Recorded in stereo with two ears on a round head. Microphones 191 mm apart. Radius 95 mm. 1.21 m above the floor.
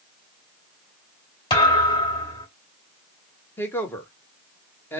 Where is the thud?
25° left (ahead or behind), 2.0 m.